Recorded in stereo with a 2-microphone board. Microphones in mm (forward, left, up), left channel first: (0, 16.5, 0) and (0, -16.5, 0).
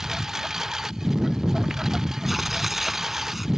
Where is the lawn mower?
10° right (ahead or behind).